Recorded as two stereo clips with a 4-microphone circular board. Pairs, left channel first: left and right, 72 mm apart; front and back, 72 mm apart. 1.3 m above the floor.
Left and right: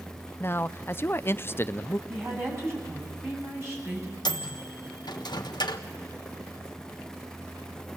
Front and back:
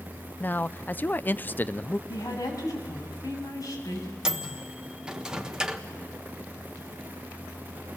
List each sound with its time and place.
0.4 s a man speaking: 50° left, 0.5 m
2.1 s a woman speaking: 35° right, 7.5 m
4.2 s a microwave: 100° left, 1.2 m